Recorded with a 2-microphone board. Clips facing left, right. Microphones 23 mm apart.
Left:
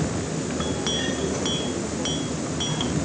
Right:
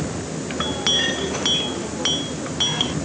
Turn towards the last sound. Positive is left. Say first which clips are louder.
# right 7 dB
turn(degrees=-35)  # may be behind; listen again after turning